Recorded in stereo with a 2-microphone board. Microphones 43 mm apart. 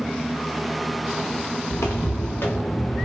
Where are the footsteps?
80° left, 1.1 m; by 3.0 s 25° left (ahead or behind), 1.1 m.